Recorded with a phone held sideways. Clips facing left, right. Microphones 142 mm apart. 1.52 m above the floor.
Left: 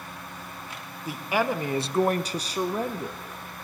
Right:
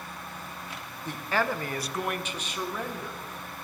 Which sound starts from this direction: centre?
A man speaking, at 1.1 s.